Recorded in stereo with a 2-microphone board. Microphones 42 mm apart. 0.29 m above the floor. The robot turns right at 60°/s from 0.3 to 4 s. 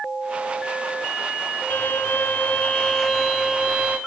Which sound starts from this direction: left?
A violin, at 1.7 s.